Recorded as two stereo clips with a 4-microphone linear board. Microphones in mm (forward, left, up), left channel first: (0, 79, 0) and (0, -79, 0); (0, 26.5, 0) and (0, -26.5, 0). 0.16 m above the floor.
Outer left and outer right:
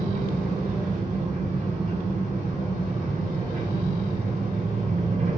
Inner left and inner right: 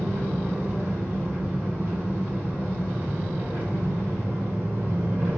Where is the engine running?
45° right (ahead or behind), 1.9 m.